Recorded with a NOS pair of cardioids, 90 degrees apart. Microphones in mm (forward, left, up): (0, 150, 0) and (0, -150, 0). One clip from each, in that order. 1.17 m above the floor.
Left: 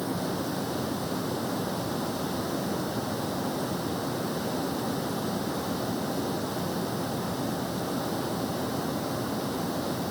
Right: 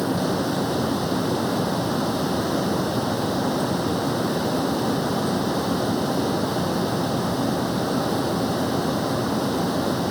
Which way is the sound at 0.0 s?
50° right.